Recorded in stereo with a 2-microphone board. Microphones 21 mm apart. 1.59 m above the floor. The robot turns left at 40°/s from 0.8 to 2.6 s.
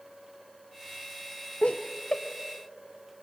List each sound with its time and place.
1.6 s laughter: 80° left, 0.6 m; by 2.2 s 55° left (ahead or behind), 0.6 m